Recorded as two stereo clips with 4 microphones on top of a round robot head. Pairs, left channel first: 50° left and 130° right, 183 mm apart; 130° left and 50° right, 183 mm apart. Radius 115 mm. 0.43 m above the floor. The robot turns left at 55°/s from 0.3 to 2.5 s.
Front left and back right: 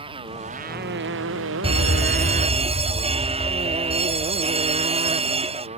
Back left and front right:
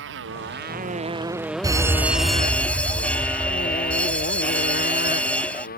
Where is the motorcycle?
65° right; by 5.8 s 170° left.